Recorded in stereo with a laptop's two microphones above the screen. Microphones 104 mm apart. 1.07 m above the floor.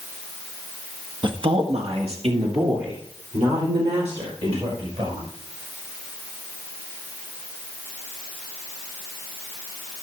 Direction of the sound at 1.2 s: 50° right (ahead or behind).